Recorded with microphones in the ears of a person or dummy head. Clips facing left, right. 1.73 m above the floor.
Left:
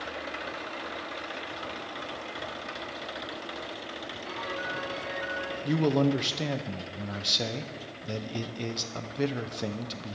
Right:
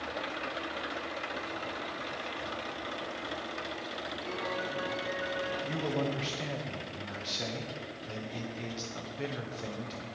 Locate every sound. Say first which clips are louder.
4.2 s a piano: right 1 dB; 10° left (ahead or behind), 5.5 m
5.7 s a man speaking: left 11 dB; 65° left (ahead or behind), 0.9 m